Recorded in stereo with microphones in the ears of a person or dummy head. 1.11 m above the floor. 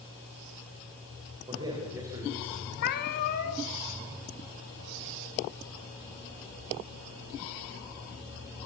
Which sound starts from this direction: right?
A man speaking, at 1.5 s.